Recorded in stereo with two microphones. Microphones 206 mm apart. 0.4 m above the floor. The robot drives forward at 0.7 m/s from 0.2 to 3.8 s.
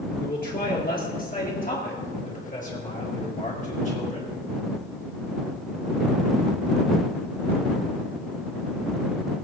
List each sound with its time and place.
0.2 s a man speaking: 50° left (ahead or behind), 6 m; by 4.4 s 35° left (ahead or behind), 7.5 m